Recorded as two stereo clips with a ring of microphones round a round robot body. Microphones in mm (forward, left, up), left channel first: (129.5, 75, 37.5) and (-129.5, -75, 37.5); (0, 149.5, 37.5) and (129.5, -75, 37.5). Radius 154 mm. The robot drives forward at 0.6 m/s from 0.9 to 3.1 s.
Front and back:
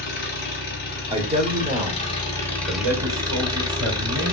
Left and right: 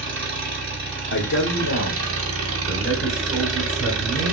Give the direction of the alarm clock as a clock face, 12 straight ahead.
No alarm clock in this recording.